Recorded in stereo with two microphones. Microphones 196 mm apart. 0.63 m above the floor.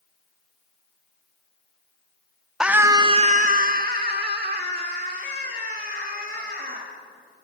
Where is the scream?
5° right (ahead or behind), 0.7 m; by 6.9 s 50° right (ahead or behind), 3 m.